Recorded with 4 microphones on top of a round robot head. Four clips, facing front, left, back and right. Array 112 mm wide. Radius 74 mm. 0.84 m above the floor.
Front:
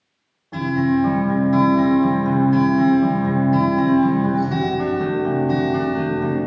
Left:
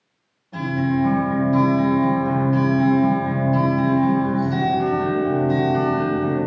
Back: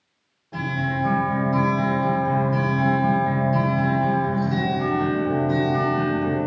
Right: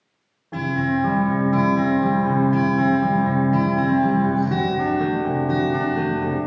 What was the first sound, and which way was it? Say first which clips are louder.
A guitar: left 1 dB, front 8 dB; 65° right.